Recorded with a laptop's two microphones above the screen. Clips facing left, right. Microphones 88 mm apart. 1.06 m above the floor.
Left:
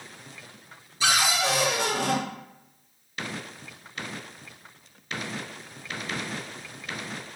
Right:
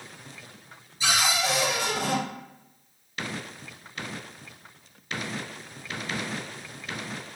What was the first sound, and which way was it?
A cupboard door, 70° left (ahead or behind).